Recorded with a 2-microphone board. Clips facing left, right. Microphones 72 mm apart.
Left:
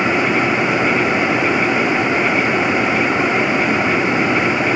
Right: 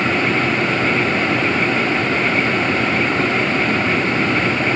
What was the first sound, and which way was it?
Only background noise.